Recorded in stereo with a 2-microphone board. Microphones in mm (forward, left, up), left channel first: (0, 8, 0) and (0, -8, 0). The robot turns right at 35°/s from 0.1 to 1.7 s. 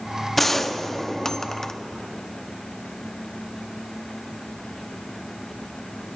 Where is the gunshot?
15° left, 0.7 m; by 1.7 s 65° left, 0.7 m.